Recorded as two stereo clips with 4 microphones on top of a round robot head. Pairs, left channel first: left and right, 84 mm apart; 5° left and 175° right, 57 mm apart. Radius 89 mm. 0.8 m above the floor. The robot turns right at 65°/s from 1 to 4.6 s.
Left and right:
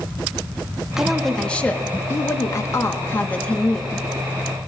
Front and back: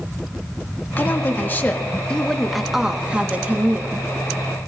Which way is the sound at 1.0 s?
10° right.